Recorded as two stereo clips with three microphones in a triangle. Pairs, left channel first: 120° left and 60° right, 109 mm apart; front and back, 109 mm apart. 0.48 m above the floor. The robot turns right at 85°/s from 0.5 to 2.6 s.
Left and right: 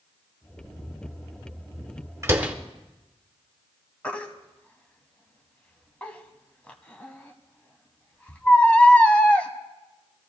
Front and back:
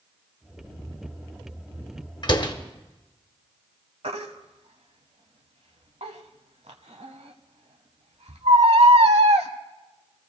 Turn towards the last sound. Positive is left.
turn(degrees=-165)